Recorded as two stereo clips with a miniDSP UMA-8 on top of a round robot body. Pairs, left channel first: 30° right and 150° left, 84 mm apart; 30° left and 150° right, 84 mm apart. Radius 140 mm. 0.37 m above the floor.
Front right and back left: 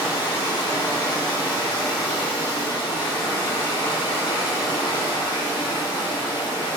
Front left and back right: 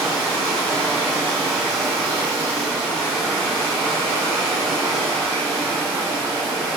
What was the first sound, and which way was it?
Running water, 90° right.